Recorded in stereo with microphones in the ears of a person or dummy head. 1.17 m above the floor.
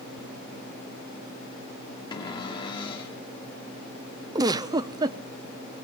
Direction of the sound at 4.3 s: 25° right (ahead or behind).